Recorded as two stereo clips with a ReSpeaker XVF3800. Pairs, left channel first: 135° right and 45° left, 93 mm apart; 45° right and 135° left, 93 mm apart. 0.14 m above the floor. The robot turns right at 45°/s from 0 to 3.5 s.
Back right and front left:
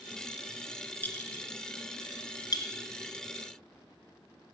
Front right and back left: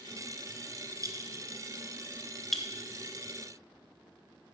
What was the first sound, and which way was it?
A clink, 160° left.